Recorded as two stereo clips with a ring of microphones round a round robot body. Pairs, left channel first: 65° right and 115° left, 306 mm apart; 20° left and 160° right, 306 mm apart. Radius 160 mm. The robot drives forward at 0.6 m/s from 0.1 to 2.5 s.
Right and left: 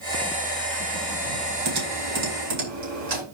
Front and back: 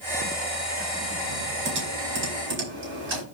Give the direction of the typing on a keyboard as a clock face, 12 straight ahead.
7 o'clock.